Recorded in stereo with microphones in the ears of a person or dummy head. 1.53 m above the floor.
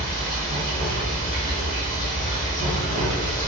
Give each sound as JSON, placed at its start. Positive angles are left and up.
{"t": 0.0, "sound": "running water", "side_deg": -45, "distance_m": 1.8}